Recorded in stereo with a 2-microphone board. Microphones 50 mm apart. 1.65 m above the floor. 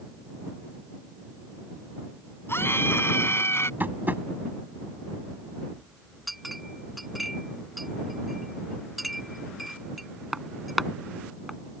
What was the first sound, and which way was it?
A scream, 50° left (ahead or behind).